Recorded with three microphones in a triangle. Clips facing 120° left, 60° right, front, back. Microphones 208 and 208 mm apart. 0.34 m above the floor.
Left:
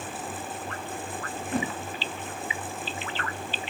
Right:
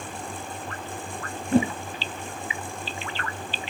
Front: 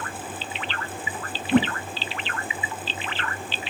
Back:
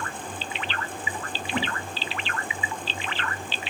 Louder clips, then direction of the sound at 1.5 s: Right 9 dB, front 11 dB; straight ahead.